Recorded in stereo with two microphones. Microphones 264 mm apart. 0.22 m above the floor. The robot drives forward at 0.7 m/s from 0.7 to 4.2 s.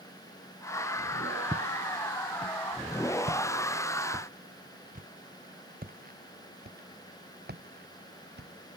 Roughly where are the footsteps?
Centre.